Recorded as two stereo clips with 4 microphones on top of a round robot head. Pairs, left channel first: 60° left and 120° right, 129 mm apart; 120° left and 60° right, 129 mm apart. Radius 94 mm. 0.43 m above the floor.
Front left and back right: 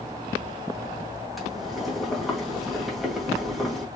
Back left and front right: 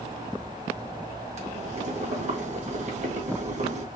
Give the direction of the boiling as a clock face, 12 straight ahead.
1 o'clock.